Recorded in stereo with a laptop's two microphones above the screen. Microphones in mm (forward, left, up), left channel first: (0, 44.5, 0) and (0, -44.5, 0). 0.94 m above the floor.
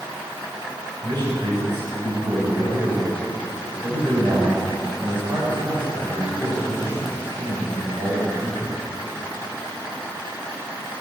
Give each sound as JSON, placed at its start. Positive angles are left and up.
{"t": 1.0, "sound": "a man speaking", "side_deg": -60, "distance_m": 6.5}